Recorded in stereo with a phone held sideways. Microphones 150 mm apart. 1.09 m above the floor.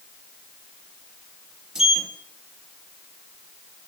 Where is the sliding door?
5° right (ahead or behind), 0.6 m.